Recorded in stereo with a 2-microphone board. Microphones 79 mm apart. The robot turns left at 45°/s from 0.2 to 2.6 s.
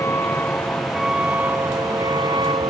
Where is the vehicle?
30° left (ahead or behind); by 2.7 s 75° right (ahead or behind).